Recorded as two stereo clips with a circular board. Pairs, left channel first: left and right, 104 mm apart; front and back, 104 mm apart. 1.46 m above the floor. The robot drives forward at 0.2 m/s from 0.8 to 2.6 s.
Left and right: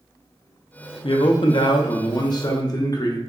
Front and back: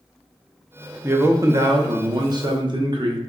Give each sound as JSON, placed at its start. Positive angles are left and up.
{"t": 1.0, "sound": "a man speaking", "azimuth_deg": 115, "distance_m": 0.5}